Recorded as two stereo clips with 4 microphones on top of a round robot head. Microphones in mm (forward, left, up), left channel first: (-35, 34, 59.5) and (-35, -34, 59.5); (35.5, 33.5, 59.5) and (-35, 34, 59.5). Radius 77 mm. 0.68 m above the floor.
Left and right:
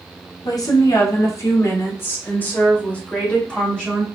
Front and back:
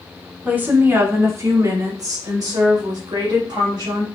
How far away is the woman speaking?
About 1.8 m.